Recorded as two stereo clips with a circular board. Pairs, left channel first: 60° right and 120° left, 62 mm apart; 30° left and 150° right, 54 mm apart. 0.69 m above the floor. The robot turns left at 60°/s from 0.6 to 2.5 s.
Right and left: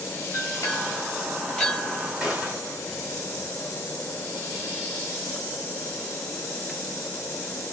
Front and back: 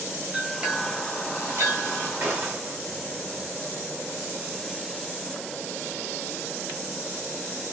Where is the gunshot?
170° right, 1.6 m; by 2.8 s 170° left, 1.6 m.